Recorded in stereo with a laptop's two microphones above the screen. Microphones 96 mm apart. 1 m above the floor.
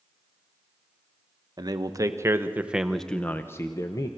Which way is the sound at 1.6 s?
45° right (ahead or behind).